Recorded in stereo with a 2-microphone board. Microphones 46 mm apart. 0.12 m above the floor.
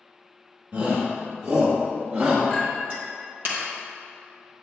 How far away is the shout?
About 2.5 m.